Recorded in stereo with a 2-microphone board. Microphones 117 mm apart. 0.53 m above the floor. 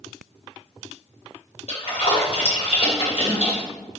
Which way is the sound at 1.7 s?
60° left (ahead or behind).